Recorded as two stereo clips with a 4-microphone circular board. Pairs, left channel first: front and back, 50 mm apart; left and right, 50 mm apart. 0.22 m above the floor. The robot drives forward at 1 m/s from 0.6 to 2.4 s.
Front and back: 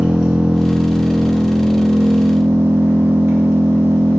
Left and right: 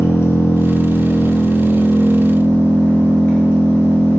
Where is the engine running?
105° left, 1.9 m; by 4.2 s 145° left, 3 m.